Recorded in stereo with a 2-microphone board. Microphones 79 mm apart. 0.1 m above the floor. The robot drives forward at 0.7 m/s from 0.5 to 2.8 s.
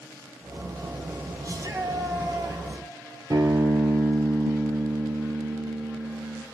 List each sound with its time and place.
1.4 s a shout: 50° right (ahead or behind), 2.5 m; by 2.9 s 60° right (ahead or behind), 2 m
3.3 s a guitar: 55° right (ahead or behind), 1.3 m